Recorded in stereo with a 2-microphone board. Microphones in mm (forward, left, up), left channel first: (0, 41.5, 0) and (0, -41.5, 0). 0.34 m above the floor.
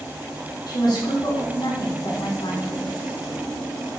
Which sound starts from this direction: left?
A woman speaking, at 0.7 s.